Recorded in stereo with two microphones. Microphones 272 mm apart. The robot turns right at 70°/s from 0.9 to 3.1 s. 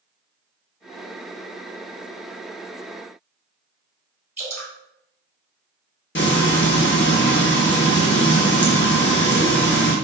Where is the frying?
45° left (ahead or behind), 0.8 m.